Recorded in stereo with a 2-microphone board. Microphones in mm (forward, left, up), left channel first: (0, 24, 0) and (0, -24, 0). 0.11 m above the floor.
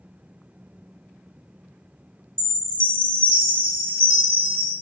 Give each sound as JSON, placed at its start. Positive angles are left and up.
{"t": 2.4, "sound": "a chime", "side_deg": -55, "distance_m": 1.9}